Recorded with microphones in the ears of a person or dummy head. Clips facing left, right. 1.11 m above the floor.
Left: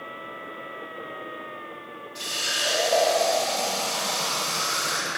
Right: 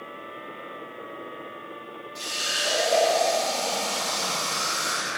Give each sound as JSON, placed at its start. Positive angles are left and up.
{"t": 2.1, "sound": "a running tap", "side_deg": -5, "distance_m": 2.5}